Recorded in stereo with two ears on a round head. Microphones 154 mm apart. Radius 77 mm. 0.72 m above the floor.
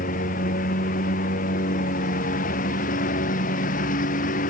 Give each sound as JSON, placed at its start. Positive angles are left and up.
{"t": 0.0, "sound": "a lawn mower", "side_deg": 50}